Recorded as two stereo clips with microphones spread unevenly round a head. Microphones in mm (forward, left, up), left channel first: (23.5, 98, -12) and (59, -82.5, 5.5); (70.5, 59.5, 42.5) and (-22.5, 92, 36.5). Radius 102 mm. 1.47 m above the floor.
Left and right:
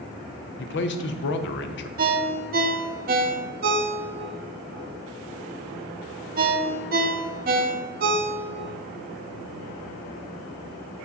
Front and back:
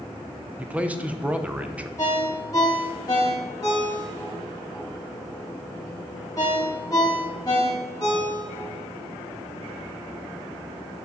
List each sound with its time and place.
0.6 s a man speaking: 85° left, 0.8 m
2.0 s a ringtone: 85° right, 0.7 m